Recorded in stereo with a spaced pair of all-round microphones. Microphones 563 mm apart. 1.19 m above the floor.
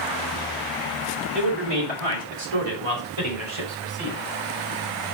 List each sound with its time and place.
1.3 s a man speaking: 45° right (ahead or behind), 3.5 m; by 4.2 s 60° right (ahead or behind), 6.5 m